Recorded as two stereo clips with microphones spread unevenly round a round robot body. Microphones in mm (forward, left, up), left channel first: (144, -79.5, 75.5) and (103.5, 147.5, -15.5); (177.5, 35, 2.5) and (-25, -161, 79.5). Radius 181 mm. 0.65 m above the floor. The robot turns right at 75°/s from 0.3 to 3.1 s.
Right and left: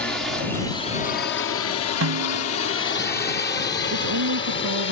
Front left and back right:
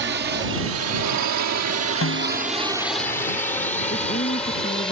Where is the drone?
170° left; by 4.9 s 35° right.